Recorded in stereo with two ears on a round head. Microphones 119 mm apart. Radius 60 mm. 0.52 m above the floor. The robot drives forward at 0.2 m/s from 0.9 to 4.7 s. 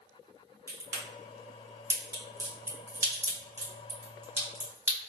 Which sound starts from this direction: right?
A crack, at 0.7 s.